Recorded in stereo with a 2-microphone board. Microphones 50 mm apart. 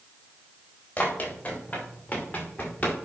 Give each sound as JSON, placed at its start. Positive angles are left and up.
{"t": 1.0, "sound": "running footsteps", "side_deg": 40, "distance_m": 5.5}